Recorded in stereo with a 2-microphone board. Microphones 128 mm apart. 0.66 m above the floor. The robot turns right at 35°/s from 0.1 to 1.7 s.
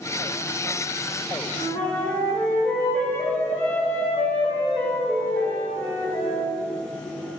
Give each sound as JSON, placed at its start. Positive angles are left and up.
{"t": 1.5, "sound": "a flute", "side_deg": 25, "distance_m": 2.5}